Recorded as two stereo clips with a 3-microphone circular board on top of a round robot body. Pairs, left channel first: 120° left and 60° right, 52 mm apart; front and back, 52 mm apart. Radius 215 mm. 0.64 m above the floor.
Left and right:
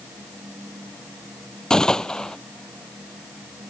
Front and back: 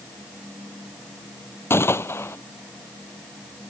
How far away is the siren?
No siren in this recording.